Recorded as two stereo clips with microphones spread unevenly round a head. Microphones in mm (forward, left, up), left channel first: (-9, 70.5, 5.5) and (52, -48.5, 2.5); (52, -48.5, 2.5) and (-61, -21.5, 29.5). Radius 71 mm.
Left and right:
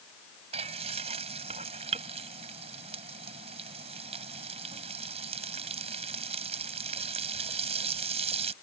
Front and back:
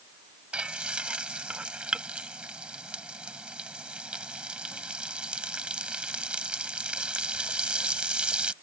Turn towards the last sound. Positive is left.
turn(degrees=-115)